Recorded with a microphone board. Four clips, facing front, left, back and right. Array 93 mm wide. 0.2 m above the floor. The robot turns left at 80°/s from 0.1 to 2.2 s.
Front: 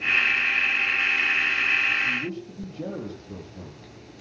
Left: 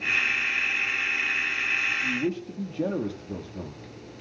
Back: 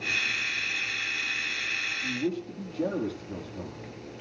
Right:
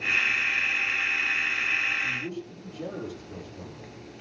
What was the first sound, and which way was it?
A man speaking, 110° left.